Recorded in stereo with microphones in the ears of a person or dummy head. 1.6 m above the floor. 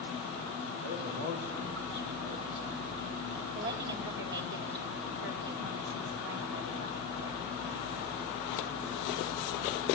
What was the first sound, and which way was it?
A man speaking, 65° right (ahead or behind).